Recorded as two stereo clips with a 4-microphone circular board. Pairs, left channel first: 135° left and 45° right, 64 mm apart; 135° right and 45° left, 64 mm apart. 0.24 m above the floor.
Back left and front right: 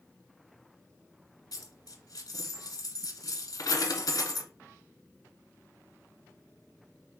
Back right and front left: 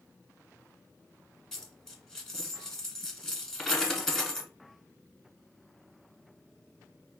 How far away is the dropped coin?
About 0.8 m.